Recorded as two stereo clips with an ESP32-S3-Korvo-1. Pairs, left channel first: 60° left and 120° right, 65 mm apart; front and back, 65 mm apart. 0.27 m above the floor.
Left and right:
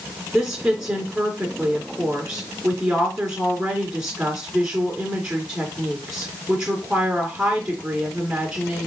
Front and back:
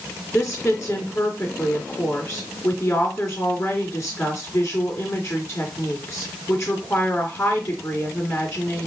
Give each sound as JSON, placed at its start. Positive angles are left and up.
{"t": 0.3, "sound": "a woman speaking", "azimuth_deg": -45, "distance_m": 2.5}